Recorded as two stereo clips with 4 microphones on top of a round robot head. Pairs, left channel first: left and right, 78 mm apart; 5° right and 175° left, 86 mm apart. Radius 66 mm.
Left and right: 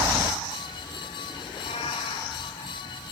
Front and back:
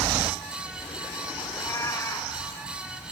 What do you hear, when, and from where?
1.5 s a cat meowing: 50° left, 1.4 m